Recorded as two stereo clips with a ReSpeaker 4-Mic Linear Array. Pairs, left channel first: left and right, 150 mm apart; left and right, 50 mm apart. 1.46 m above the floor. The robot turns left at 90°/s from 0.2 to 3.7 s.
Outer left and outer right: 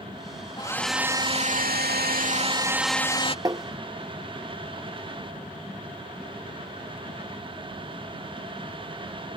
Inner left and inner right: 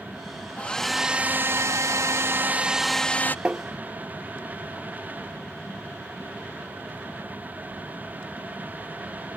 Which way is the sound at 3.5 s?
25° right (ahead or behind).